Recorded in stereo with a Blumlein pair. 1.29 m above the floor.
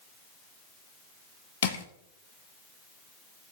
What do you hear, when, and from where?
1.6 s crushing: 60° left, 1.8 m